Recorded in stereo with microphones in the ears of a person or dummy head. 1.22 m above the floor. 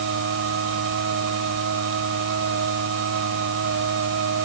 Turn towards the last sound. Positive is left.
turn(degrees=-70)  # may be behind; listen again after turning